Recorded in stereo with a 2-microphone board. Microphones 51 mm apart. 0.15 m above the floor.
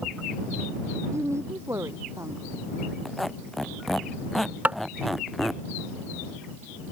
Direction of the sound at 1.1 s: 70° right (ahead or behind).